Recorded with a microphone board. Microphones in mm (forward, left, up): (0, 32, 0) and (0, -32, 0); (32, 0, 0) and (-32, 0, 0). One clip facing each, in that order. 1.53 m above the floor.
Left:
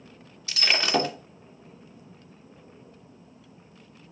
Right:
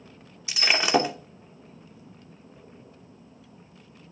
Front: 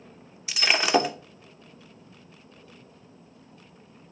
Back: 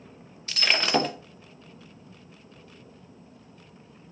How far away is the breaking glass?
About 0.8 m.